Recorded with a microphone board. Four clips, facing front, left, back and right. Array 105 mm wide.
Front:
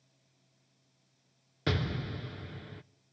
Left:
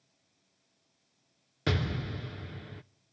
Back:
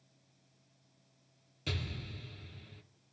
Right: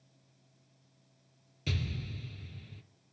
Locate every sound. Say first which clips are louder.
1.7 s an explosion: left 7 dB, front 9 dB; 50° left, 0.5 m